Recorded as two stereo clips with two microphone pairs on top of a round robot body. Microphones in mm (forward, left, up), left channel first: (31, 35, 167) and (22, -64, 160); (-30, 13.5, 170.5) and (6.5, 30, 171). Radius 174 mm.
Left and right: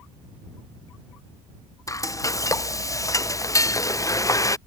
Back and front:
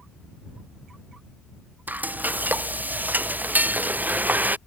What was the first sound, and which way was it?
Frying, 35° left.